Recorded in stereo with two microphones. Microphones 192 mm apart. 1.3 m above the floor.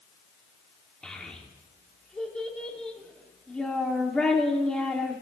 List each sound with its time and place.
1.0 s a child speaking: 5° left (ahead or behind), 1.9 m